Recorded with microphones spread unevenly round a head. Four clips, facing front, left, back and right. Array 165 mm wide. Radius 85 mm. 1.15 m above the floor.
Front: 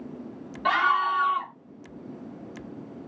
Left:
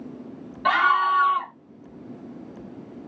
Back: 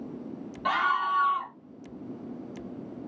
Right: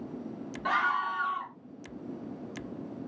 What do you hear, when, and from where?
0.7 s a scream: 65° left, 0.7 m